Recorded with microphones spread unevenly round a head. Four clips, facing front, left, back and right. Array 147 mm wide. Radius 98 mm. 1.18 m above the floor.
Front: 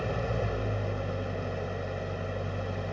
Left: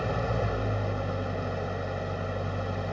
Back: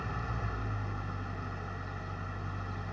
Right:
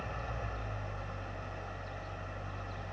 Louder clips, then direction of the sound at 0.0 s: Left 12 dB, front 7 dB; 95° left.